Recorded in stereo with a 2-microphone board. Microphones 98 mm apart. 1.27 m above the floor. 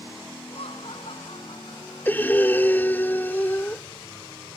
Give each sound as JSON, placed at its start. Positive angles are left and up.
{"t": 0.5, "sound": "laughter", "side_deg": 75}
{"t": 2.0, "sound": "breathing", "side_deg": 20}